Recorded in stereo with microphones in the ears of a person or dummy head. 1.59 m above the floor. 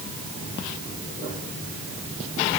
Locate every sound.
Only background noise.